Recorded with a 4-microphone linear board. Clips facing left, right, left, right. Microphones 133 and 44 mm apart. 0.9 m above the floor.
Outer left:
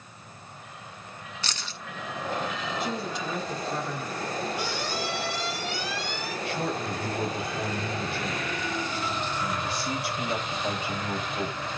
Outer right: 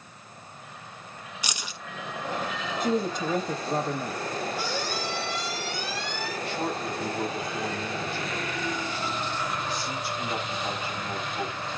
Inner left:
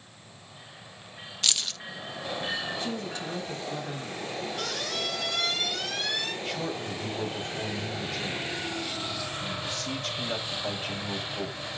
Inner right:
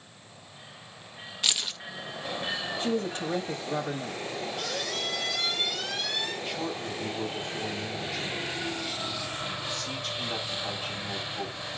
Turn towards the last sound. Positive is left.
turn(degrees=85)